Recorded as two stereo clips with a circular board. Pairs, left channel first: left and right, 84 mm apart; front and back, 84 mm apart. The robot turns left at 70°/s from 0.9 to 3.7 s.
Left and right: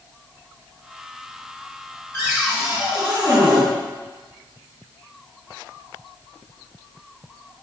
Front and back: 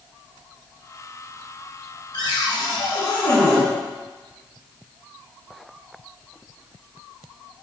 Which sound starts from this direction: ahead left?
A cupboard door, at 2.1 s.